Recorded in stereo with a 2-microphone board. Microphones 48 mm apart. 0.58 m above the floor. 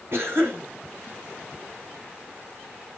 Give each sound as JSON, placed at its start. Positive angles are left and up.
{"t": 0.1, "sound": "a cough", "side_deg": -55, "distance_m": 4.0}